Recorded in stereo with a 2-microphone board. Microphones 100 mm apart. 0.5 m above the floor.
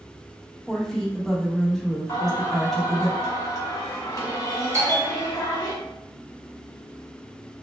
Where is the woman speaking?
5° left (ahead or behind), 0.7 m.